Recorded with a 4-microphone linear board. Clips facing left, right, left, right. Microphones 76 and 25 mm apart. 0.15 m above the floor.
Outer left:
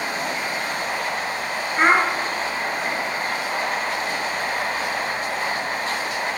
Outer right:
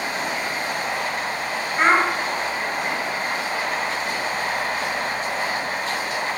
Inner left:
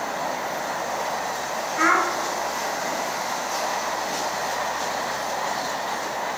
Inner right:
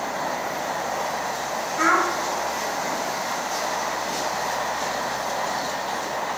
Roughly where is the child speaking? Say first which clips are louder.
Even, even; centre.